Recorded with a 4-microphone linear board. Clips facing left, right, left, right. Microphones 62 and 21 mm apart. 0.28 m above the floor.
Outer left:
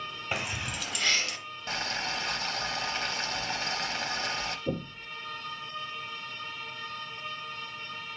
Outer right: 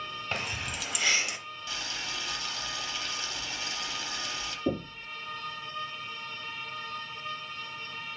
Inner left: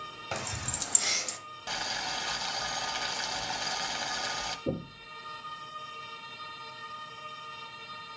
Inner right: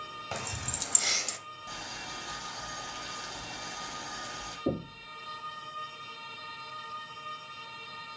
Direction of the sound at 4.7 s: 65° right (ahead or behind).